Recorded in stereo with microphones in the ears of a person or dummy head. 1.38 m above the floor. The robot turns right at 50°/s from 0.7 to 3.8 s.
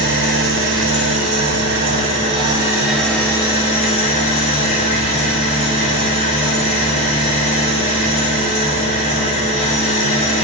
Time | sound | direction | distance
0.0 | an engine running | 115° right | 6 m